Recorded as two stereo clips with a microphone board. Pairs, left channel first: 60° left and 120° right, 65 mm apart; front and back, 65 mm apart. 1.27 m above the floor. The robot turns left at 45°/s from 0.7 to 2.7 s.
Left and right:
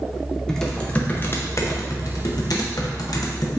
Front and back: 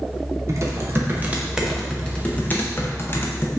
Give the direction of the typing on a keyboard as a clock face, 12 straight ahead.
7 o'clock.